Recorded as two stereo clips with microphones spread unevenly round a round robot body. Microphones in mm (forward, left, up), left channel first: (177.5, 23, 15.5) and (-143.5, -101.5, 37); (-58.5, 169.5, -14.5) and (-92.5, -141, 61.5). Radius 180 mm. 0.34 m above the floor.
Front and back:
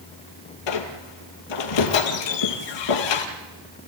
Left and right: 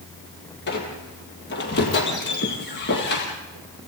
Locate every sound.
0.7 s a squeak: 20° left, 2.5 m